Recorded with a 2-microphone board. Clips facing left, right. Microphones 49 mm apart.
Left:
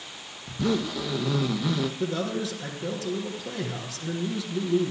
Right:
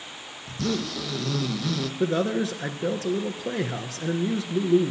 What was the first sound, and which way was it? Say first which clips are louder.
A zipper: left 2 dB; 15° left (ahead or behind).